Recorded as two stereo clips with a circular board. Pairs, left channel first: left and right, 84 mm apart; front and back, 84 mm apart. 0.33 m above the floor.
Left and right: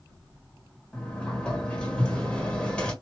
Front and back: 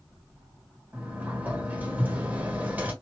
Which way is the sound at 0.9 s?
150° left.